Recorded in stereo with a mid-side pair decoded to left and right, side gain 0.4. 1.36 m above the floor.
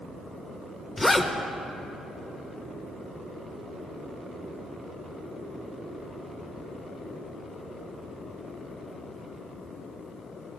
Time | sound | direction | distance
1.0 | a zipper | 25° left | 1.3 m